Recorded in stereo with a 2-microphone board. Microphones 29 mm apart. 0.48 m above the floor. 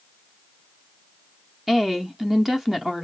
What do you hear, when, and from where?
1.7 s a woman speaking: 10° right (ahead or behind), 0.7 m